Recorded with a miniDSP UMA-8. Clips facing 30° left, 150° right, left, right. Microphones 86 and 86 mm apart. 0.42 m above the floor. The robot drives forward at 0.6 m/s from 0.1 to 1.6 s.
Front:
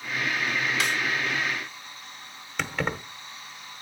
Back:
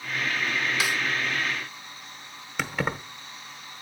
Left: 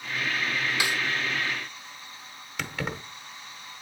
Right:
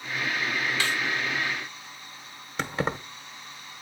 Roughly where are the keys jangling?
Right.